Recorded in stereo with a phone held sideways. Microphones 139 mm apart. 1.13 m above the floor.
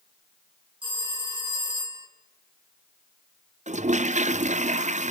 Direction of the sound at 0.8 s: 35° right (ahead or behind).